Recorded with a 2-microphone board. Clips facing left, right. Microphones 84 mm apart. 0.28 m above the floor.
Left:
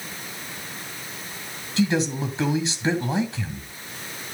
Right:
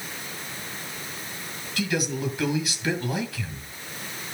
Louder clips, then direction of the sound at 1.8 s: Left 5 dB; 30° left (ahead or behind).